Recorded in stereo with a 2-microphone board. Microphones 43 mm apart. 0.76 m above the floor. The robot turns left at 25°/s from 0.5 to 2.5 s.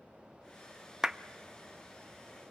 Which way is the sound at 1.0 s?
15° right (ahead or behind).